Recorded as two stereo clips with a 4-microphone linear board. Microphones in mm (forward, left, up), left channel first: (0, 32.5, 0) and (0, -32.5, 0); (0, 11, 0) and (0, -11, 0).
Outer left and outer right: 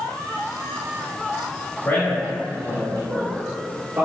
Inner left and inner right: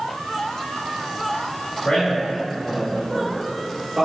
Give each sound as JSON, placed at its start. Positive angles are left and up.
{"t": 1.9, "sound": "a man speaking", "side_deg": 45, "distance_m": 1.9}